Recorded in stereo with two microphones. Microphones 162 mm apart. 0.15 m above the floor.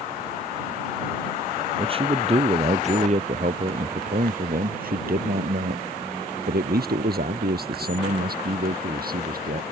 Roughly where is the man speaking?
Right.